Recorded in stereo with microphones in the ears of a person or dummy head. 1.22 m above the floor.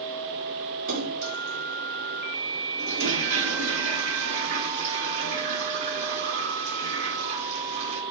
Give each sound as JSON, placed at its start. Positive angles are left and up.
{"t": 0.9, "sound": "a splash", "side_deg": -65, "distance_m": 3.5}
{"t": 2.8, "sound": "a toilet flushing", "side_deg": -70, "distance_m": 2.5}